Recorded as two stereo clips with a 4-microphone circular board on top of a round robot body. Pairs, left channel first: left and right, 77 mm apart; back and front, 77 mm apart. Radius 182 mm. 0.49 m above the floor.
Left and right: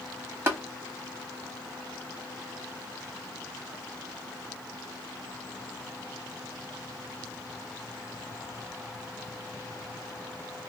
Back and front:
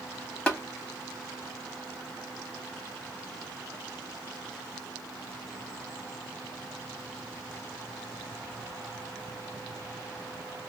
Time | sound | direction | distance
0.5 | tapping | 120° right | 1.3 m